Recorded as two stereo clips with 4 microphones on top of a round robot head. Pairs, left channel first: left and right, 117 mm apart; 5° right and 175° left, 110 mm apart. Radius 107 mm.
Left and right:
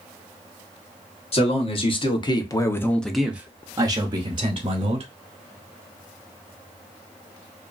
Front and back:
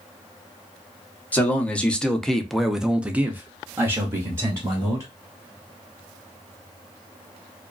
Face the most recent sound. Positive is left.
turn(degrees=-125)